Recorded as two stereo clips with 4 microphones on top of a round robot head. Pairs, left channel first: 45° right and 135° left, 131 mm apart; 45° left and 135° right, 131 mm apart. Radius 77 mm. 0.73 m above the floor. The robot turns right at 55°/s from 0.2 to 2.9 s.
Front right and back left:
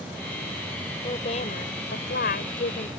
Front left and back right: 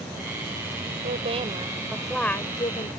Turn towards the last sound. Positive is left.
turn(degrees=0)